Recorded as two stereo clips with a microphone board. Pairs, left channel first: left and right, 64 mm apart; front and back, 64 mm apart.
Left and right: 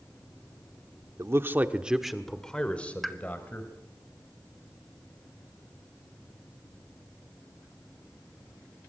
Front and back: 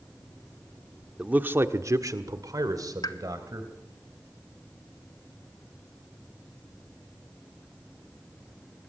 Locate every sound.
1.2 s a man speaking: 110° right, 1.3 m; by 3.7 s 150° left, 3 m
3.0 s a pop: 5° left, 1.2 m